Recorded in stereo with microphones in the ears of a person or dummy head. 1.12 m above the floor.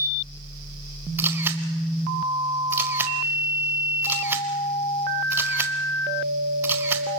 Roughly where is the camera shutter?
Centre.